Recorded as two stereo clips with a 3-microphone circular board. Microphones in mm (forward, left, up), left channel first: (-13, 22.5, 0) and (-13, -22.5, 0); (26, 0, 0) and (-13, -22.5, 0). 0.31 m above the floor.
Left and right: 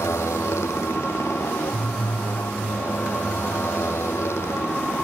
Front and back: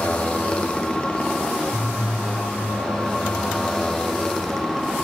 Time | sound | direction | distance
0.0 | a motorcycle | 95° left | ?